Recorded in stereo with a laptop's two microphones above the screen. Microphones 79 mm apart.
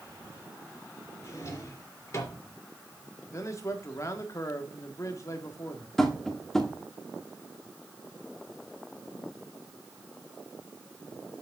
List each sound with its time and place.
1.2 s a drawer: 40° left (ahead or behind), 3.5 m
3.3 s a man speaking: 40° left (ahead or behind), 1.6 m
6.0 s tapping: 5° left (ahead or behind), 1.9 m